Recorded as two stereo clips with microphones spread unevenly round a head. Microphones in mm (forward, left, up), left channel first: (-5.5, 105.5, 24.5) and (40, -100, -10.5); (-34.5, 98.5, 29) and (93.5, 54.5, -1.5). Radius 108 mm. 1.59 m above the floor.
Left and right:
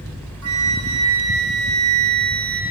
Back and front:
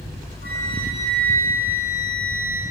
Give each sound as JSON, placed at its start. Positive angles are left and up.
{"t": 0.4, "sound": "a flute", "azimuth_deg": -65, "distance_m": 1.5}